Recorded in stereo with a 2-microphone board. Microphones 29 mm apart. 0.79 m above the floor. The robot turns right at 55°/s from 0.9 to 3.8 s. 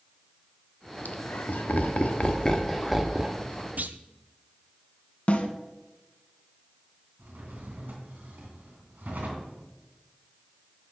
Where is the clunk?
60° right (ahead or behind), 0.7 m.